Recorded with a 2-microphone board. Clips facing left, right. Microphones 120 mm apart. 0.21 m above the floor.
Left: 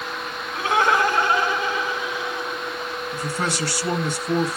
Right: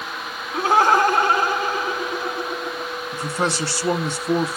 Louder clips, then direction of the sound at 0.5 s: Right 3 dB; 35° right (ahead or behind).